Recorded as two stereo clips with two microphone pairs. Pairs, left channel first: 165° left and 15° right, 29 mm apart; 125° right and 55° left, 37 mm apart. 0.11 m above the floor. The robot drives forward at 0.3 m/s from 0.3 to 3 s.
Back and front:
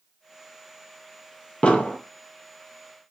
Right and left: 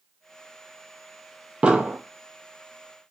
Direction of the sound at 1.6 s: 120° left.